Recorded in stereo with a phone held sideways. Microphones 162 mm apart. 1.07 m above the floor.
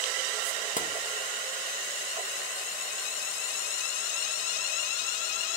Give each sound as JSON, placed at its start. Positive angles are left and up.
{"t": 0.8, "sound": "tapping", "side_deg": 55, "distance_m": 0.5}